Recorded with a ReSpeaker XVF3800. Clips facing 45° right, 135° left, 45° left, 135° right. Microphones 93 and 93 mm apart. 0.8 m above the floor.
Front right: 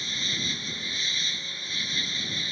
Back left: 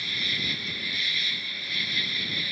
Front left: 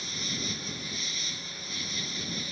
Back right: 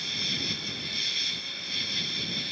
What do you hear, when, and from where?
0.0 s an insect: 110° right